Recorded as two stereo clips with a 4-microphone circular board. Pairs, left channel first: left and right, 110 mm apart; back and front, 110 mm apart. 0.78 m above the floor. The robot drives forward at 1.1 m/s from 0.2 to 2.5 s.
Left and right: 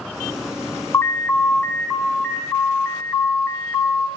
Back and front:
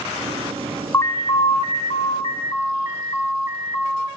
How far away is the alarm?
About 0.6 m.